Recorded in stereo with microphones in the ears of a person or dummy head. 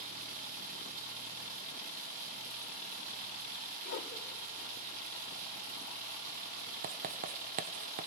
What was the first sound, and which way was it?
Running water, 50° right (ahead or behind).